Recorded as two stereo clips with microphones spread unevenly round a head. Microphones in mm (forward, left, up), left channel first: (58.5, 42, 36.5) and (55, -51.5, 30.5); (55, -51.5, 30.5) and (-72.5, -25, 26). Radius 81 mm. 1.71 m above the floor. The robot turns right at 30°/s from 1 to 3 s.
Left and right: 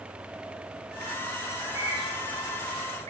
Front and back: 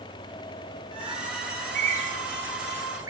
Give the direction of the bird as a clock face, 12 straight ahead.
6 o'clock.